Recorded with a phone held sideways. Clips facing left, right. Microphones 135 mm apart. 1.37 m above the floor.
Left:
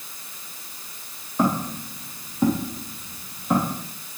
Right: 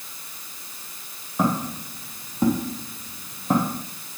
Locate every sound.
1.4 s footsteps: 5° right (ahead or behind), 3 m; by 3.8 s 45° right (ahead or behind), 3 m